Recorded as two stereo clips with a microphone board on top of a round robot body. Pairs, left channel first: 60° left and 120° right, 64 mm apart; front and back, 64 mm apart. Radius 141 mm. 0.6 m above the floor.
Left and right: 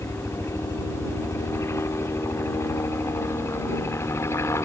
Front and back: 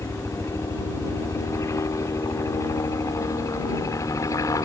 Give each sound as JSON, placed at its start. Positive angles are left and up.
{"t": 0.0, "sound": "a helicopter", "azimuth_deg": 25}